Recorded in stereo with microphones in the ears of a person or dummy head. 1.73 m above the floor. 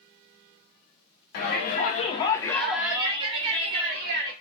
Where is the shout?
55° left (ahead or behind), 0.9 m; by 4.3 s 55° right (ahead or behind), 1.1 m.